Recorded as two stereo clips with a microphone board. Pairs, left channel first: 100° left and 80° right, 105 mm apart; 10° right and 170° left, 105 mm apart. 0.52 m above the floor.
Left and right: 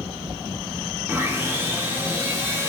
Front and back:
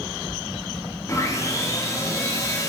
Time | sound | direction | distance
1.1 | sawing | 35° right | 0.9 m